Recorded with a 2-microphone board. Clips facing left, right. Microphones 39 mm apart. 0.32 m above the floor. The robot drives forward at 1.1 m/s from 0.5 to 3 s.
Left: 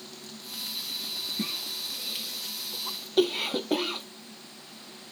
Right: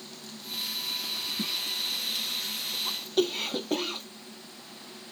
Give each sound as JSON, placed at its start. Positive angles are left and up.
{"t": 1.4, "sound": "a cough", "side_deg": 15}